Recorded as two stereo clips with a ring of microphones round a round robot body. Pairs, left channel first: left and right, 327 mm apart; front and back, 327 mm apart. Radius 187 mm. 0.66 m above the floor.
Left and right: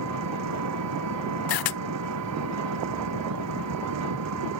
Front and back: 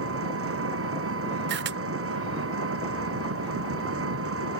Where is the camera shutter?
120° left.